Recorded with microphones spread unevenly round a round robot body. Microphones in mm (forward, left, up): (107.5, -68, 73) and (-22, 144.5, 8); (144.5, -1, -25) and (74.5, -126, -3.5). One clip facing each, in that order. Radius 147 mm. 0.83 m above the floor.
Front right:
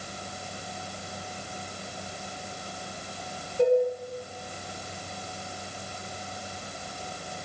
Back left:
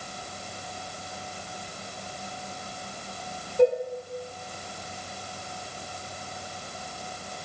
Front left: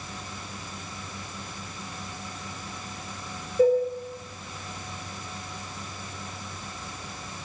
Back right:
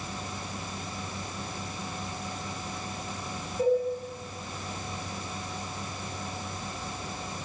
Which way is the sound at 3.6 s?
105° left.